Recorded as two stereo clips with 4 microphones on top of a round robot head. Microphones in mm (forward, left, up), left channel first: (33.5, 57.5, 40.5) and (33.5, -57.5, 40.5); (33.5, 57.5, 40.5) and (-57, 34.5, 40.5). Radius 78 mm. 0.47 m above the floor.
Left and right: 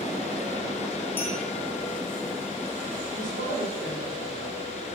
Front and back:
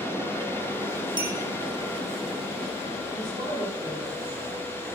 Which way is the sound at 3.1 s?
110° right.